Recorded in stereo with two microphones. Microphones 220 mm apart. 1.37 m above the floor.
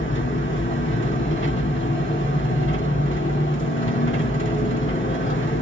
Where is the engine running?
65° left (ahead or behind), 1.6 m.